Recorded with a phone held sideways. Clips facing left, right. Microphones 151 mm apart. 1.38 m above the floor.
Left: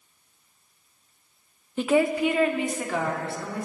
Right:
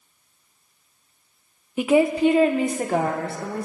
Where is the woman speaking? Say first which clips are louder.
Right 4 dB; 10° right (ahead or behind), 0.6 m; by 3.6 s 50° right (ahead or behind), 1.8 m.